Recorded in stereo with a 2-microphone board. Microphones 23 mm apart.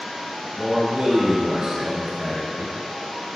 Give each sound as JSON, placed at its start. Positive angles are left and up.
{"t": 0.6, "sound": "a man speaking", "side_deg": -30, "distance_m": 1.5}